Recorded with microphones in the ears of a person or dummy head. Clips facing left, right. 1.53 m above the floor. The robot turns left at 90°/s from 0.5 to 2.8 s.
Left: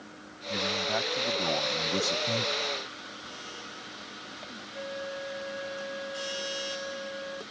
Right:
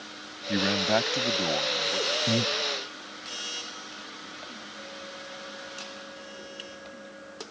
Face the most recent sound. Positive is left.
turn(degrees=85)